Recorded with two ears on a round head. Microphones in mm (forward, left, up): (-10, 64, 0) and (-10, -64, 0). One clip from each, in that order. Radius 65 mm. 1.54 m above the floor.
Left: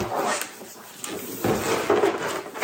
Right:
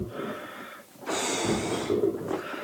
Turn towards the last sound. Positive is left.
turn(degrees=85)